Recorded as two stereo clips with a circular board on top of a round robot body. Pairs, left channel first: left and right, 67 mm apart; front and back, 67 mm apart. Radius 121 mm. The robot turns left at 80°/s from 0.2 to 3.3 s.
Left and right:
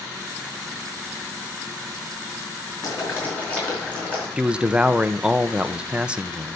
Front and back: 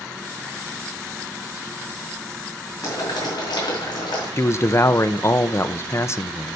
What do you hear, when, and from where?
2.8 s boiling: 55° left, 4.5 m; by 4.3 s 20° left, 4.5 m
4.4 s a man speaking: 20° right, 0.9 m